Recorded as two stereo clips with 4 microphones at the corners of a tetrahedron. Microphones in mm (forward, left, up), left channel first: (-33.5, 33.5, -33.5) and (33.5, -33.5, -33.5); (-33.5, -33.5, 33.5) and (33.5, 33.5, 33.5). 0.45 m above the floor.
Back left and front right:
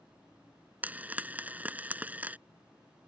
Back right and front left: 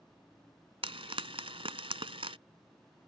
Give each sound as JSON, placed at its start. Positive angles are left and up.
{"t": 0.8, "sound": "frying", "azimuth_deg": 30}